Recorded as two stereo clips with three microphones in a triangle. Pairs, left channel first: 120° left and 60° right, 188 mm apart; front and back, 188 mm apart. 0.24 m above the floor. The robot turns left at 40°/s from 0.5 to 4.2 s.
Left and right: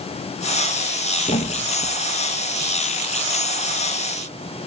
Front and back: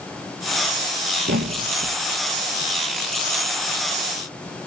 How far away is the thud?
About 1.9 m.